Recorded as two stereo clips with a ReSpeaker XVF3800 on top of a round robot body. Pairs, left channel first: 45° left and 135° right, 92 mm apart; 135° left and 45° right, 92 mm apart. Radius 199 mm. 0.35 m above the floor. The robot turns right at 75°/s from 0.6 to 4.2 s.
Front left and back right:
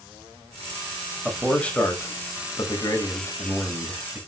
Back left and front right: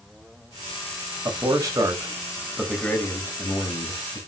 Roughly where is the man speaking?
Ahead right.